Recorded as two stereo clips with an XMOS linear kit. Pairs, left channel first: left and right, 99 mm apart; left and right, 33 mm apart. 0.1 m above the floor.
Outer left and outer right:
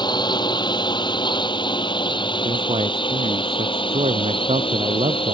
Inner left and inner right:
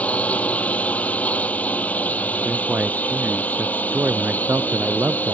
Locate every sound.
0.0 s a drone: 45° left (ahead or behind); by 5.3 s 60° left (ahead or behind)
2.5 s a man speaking: 80° right